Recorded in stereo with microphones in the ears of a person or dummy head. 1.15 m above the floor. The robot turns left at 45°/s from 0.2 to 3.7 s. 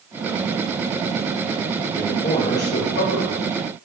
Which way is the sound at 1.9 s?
160° left.